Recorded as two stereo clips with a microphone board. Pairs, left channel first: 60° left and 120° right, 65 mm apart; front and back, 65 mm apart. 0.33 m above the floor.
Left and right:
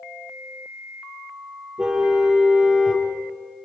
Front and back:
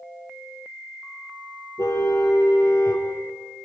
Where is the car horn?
45° right, 4.5 m.